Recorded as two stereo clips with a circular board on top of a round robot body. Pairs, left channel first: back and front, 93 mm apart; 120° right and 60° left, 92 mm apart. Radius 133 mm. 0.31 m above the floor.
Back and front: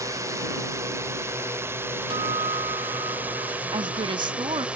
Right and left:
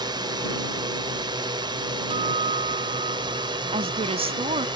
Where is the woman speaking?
40° left.